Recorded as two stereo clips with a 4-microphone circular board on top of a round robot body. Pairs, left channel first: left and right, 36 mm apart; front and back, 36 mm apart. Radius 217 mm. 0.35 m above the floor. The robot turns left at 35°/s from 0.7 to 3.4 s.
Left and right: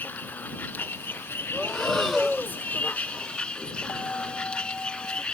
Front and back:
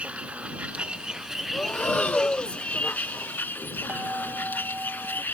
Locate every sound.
0.0 s a vehicle: 125° left; by 5.3 s 30° left
1.5 s breathing: 30° left; by 2.6 s 10° right
3.9 s a bell: 140° left